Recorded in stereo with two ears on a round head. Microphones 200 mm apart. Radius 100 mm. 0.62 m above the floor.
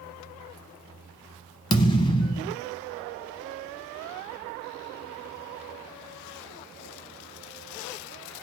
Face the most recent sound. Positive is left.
turn(degrees=20)  # may be behind; listen again after turning